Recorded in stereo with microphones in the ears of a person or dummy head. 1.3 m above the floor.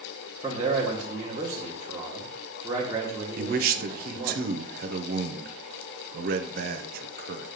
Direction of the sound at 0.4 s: 15° right (ahead or behind).